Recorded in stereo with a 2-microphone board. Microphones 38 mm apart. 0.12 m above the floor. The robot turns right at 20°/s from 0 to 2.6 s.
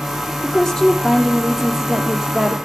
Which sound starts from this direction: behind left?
A woman speaking, at 0.4 s.